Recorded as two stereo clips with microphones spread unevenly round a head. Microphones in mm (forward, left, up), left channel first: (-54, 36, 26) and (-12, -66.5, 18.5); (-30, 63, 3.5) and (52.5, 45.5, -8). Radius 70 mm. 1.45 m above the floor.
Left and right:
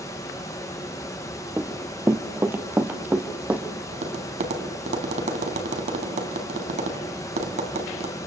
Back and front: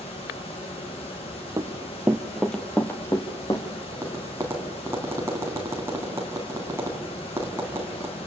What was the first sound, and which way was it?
A fan, 175° left.